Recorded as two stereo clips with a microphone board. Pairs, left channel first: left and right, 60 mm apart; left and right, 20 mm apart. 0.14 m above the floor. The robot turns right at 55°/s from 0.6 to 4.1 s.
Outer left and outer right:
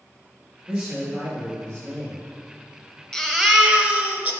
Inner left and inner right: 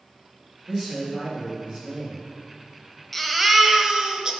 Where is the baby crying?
160° left, 0.9 m; by 4.3 s 145° right, 0.9 m.